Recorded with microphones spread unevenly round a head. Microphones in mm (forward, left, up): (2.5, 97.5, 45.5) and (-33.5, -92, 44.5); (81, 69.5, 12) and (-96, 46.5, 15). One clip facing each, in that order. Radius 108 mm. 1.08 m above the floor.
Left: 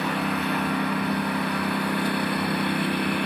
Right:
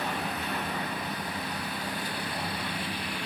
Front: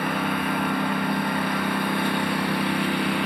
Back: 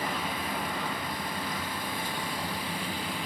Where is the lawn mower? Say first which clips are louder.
Left 7 dB, front 8 dB; 40° left; by 3.3 s 35° left.